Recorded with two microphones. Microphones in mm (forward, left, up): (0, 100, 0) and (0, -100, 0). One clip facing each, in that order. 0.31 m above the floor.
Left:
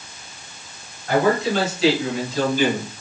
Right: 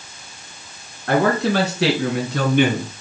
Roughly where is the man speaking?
Right.